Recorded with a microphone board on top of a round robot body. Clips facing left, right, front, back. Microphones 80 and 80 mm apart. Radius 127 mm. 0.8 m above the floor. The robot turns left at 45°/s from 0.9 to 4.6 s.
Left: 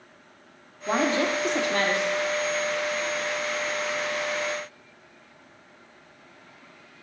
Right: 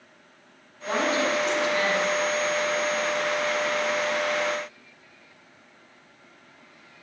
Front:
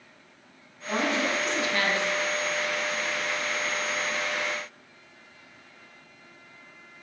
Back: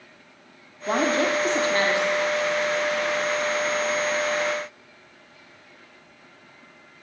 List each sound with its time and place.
0.9 s a woman speaking: 160° left, 2.5 m; by 2.1 s 105° left, 2.5 m